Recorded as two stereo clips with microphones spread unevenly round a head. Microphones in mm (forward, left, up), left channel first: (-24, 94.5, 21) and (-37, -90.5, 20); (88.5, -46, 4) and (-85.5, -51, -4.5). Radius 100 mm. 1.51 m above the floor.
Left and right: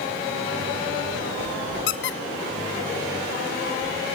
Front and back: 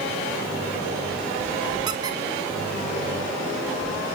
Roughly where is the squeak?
Left.